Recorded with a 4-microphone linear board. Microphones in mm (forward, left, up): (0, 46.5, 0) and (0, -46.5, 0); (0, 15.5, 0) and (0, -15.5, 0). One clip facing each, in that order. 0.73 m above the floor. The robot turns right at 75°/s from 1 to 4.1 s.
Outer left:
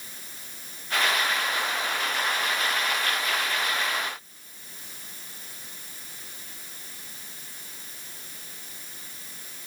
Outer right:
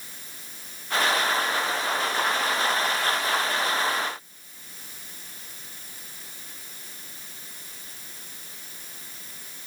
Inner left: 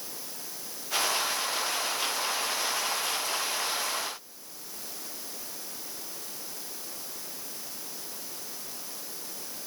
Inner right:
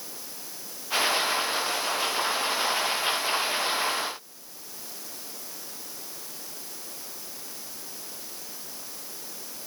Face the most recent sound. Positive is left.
No sound to turn to.